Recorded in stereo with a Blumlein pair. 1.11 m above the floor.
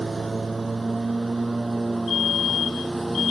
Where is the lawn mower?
10° right; by 3.3 s 5° right.